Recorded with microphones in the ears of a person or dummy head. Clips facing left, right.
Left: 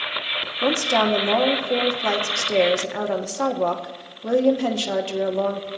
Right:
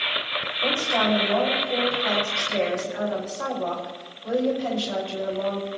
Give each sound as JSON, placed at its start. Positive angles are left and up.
{"t": 0.6, "sound": "a woman speaking", "side_deg": 65, "distance_m": 1.0}